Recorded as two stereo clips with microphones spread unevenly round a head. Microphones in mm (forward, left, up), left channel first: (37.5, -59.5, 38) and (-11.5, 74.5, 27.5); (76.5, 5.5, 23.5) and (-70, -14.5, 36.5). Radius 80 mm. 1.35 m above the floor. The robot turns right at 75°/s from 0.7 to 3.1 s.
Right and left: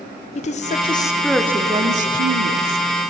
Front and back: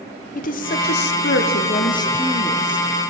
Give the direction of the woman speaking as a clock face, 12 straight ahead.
1 o'clock.